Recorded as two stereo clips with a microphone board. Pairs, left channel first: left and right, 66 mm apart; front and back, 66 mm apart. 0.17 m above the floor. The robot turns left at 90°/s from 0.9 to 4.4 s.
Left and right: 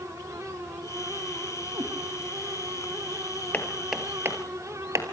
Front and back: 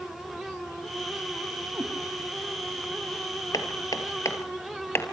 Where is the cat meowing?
115° right, 3.5 m; by 1.9 s 130° right, 3.5 m.